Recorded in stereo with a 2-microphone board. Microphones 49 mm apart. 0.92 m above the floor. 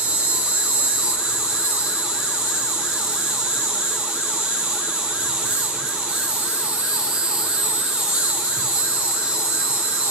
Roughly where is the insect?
Right.